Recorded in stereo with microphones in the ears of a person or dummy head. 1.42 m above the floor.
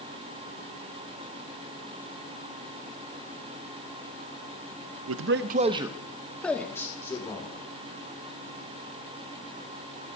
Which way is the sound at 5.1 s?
65° right (ahead or behind).